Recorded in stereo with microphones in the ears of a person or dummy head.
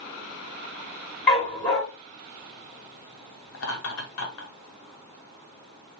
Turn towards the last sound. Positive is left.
turn(degrees=85)